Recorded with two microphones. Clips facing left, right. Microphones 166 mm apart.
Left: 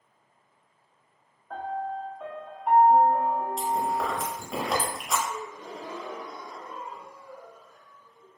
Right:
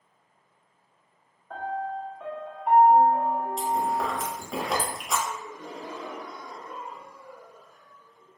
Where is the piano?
Centre (ahead or behind), 0.6 m.